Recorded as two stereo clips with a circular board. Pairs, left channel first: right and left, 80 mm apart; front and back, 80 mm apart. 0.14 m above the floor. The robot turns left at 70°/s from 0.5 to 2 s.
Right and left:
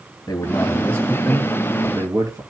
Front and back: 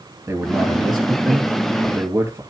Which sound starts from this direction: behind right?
A man speaking, at 0.3 s.